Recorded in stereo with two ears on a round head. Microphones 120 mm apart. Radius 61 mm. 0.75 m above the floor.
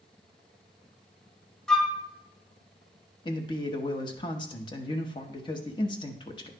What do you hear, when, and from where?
1.7 s a flute: 5° left (ahead or behind), 0.8 m
3.2 s a man speaking: 35° left (ahead or behind), 1.0 m